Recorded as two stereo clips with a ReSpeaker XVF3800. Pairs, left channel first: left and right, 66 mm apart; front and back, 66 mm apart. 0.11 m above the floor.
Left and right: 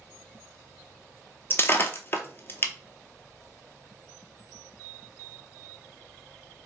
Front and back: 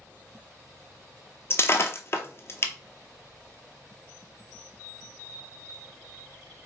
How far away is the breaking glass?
About 0.6 m.